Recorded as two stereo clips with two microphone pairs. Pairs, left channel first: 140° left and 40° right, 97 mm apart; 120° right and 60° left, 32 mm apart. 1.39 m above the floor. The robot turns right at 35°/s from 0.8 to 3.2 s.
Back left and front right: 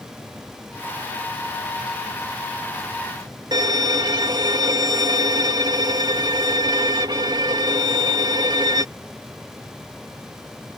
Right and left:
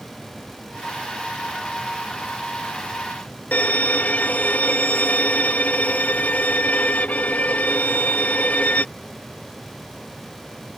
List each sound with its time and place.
3.5 s a violin: 80° right